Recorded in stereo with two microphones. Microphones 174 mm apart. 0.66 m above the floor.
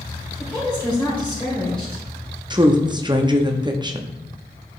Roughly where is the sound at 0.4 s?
Centre.